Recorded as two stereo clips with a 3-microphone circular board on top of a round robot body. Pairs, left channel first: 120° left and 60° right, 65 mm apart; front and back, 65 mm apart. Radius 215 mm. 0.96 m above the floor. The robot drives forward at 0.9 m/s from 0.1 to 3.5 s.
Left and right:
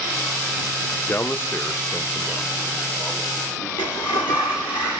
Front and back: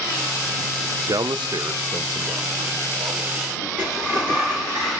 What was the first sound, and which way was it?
A man speaking, 175° left.